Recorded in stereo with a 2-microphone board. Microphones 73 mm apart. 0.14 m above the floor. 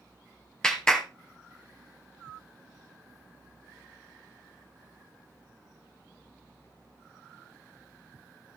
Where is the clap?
10° left (ahead or behind), 2 m.